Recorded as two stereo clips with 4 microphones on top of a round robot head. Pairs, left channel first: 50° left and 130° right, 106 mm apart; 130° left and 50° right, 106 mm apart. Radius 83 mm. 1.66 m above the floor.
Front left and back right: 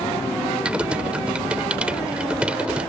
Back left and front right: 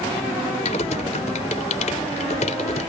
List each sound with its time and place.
0.7 s typing on a keyboard: 150° left